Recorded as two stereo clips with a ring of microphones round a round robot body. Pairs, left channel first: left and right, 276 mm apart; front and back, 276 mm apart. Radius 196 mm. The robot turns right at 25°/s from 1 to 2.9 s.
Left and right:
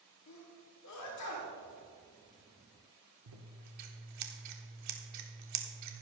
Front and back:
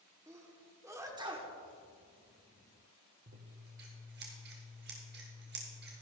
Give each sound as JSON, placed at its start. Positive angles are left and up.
{"t": 0.3, "sound": "a sneeze", "azimuth_deg": 100, "distance_m": 1.8}
{"t": 3.3, "sound": "scissors", "azimuth_deg": -120, "distance_m": 1.0}